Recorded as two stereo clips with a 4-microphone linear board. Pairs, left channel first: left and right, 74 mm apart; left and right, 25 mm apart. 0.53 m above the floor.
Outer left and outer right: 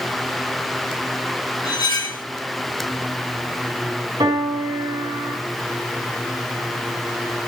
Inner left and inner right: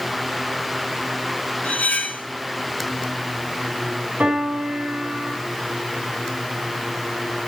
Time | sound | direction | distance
1.6 | cutlery clinking | 80° left | 2.5 m
4.2 | a piano | 80° right | 6 m